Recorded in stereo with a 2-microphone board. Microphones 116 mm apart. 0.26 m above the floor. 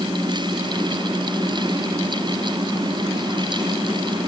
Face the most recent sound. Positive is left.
No sound to turn to.